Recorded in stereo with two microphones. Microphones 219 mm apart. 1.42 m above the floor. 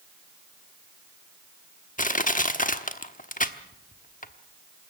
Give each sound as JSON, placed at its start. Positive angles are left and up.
{"t": 2.0, "sound": "crushing", "side_deg": 40, "distance_m": 1.1}